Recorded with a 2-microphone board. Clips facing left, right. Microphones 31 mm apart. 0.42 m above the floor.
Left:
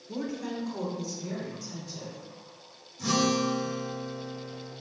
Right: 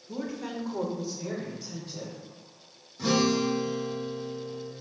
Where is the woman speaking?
10° left (ahead or behind), 1.2 m; by 2.2 s 65° right (ahead or behind), 2.5 m.